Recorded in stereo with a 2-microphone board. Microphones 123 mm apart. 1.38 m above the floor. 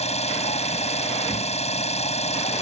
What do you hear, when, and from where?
0.0 s an engine running: 60° left (ahead or behind)